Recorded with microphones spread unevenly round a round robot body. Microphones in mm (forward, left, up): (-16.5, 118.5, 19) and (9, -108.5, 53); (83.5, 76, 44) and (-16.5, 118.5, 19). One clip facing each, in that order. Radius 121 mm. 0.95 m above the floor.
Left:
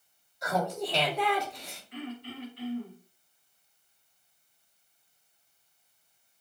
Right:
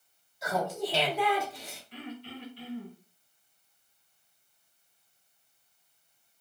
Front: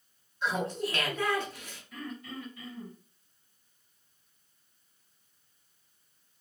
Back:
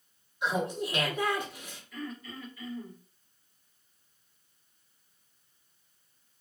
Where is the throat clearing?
30° right, 1.9 m.